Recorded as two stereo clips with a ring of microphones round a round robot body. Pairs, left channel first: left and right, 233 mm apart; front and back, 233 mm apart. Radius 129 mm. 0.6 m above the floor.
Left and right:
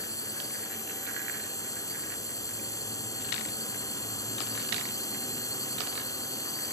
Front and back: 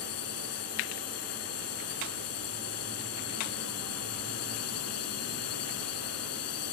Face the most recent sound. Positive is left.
turn(degrees=15)